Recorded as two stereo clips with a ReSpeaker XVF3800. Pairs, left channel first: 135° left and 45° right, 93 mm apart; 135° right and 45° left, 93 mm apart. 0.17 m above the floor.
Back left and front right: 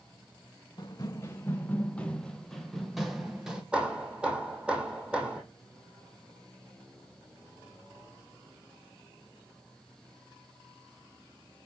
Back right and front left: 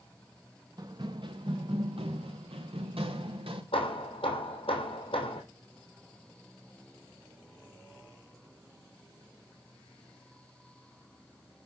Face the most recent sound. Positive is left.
turn(degrees=-125)